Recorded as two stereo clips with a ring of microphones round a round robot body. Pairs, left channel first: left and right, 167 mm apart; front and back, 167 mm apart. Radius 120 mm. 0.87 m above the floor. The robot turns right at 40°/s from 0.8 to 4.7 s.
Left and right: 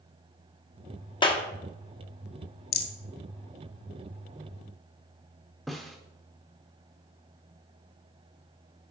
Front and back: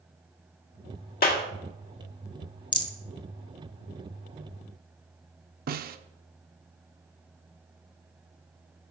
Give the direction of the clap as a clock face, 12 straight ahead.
11 o'clock.